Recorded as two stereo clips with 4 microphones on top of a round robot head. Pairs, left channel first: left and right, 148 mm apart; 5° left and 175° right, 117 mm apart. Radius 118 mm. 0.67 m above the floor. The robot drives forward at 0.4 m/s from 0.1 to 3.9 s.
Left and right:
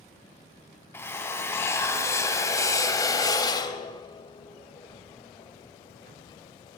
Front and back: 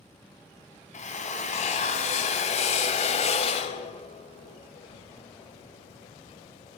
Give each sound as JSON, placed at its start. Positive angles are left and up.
{"t": 0.9, "sound": "a drill", "azimuth_deg": 15, "distance_m": 2.5}